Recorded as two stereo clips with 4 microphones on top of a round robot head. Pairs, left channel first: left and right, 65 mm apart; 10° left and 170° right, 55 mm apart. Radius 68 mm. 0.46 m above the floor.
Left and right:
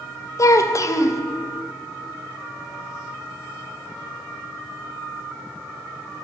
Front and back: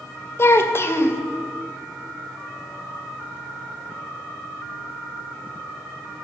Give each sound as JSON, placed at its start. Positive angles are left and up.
{"t": 0.4, "sound": "a child speaking", "azimuth_deg": 55, "distance_m": 0.9}